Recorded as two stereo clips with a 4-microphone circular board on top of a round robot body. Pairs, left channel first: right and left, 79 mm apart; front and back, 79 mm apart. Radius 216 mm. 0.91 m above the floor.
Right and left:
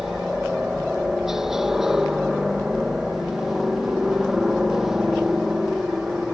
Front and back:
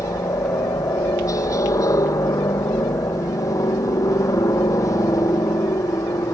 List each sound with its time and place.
0.0 s a helicopter: 5° left